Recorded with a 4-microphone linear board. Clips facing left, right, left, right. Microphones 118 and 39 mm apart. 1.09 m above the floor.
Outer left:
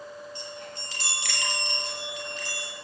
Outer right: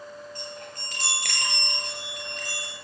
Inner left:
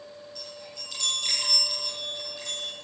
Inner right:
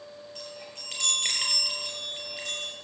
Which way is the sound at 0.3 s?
45° right (ahead or behind).